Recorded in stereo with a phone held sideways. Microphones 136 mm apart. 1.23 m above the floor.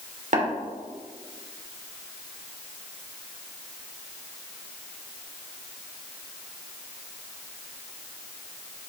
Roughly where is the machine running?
No machine running in this recording.